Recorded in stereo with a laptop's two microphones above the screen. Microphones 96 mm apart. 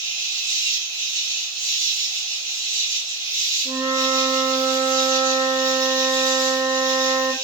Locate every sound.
0.0 s an insect: 30° right (ahead or behind), 2 m
3.6 s a flute: 35° right (ahead or behind), 0.8 m